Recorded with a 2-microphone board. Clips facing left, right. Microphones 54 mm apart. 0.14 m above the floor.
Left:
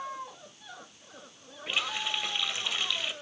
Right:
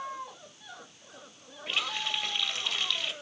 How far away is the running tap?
About 2.5 m.